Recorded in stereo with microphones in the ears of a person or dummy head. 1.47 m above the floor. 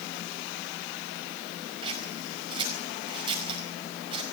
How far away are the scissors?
About 4.5 m.